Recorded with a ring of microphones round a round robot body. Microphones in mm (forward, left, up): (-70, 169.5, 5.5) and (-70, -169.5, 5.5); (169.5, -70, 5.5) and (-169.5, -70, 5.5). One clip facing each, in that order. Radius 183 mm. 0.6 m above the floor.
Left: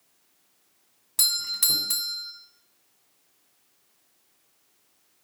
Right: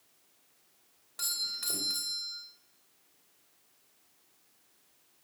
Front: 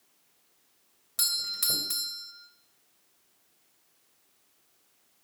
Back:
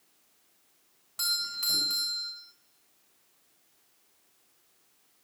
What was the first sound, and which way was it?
A doorbell, 45° left.